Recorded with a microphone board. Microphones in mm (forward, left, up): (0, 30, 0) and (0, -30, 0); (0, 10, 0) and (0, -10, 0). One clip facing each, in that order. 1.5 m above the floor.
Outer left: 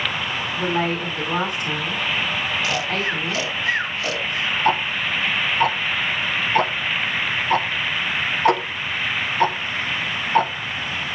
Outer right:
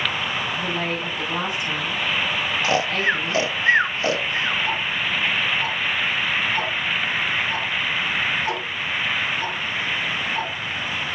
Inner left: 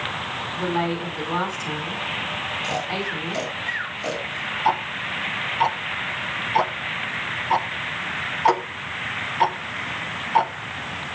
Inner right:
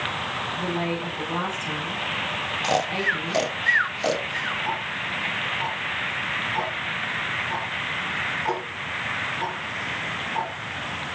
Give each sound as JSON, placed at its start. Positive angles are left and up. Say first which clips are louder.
{"t": 0.6, "sound": "a woman speaking", "louder": "outer left 3 dB, inner left 6 dB", "side_deg": 45, "distance_m": 4.0}
{"t": 2.6, "sound": "snoring", "louder": "outer right 3 dB, inner right 7 dB", "side_deg": -30, "distance_m": 0.6}
{"t": 4.7, "sound": "ticking", "louder": "outer left 4 dB, inner left 4 dB", "side_deg": 60, "distance_m": 0.8}